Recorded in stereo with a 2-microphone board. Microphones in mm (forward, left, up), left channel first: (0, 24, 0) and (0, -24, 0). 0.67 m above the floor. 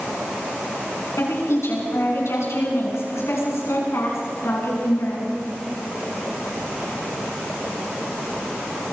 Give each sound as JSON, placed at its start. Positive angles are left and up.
{"t": 1.2, "sound": "a woman speaking", "side_deg": 75, "distance_m": 7.5}